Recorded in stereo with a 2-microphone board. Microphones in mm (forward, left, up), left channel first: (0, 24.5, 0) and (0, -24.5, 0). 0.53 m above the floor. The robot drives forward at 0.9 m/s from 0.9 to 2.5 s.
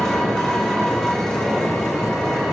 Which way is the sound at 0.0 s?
15° left (ahead or behind).